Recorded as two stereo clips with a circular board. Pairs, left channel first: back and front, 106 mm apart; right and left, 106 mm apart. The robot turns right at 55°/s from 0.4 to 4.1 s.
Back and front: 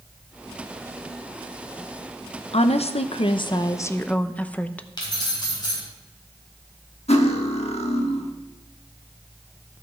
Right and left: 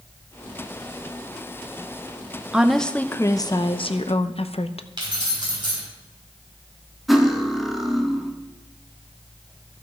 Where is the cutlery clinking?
Straight behind, 1.1 m.